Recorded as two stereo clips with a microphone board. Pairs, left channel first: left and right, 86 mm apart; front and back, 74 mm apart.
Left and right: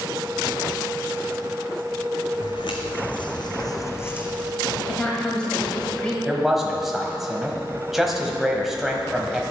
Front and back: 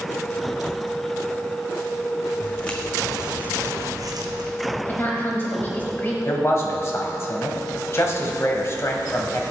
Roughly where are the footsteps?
Left.